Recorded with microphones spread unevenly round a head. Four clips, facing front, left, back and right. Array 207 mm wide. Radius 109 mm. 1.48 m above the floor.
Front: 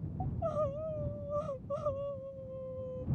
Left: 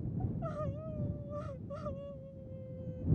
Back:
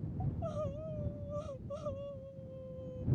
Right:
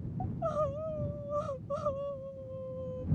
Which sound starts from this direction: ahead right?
Crying, at 0.2 s.